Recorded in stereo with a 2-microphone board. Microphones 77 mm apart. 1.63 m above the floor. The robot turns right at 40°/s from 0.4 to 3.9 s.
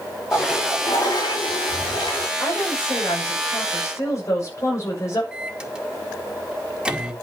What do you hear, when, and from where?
0.3 s a toilet flushing: 30° left, 4 m; by 2.3 s 105° left, 4 m
2.4 s a woman speaking: 80° left, 6 m; by 5.2 s 140° left, 6 m
5.3 s a microwave: 10° right (ahead or behind), 1.6 m